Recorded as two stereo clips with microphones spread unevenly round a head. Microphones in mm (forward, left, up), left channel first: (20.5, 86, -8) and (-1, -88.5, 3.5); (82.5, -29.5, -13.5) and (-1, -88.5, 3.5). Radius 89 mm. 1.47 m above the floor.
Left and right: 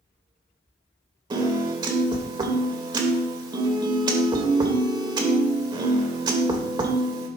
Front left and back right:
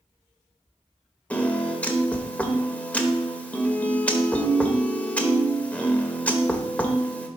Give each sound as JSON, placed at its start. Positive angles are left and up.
{"t": 1.3, "sound": "a piano", "azimuth_deg": -45, "distance_m": 1.5}